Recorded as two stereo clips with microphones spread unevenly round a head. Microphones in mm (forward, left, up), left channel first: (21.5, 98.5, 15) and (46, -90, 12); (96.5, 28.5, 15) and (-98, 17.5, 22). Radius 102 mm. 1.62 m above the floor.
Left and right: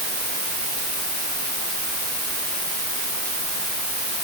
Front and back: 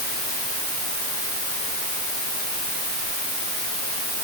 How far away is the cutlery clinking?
No cutlery clinking in this recording.